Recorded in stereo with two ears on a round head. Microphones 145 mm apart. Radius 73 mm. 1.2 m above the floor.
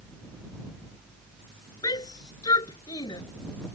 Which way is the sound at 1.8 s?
25° left (ahead or behind).